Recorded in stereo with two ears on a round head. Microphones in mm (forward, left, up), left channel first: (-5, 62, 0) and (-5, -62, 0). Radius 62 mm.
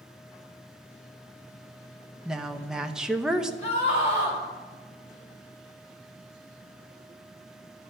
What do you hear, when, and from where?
2.2 s a woman speaking: 5° right (ahead or behind), 0.8 m
3.6 s a scream: 50° left (ahead or behind), 4.5 m